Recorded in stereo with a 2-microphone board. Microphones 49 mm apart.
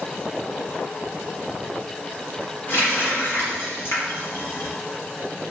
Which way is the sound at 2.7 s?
45° left (ahead or behind).